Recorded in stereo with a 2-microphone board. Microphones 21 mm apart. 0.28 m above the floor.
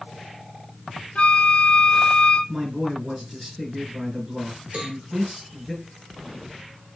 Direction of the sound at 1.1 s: 65° left (ahead or behind).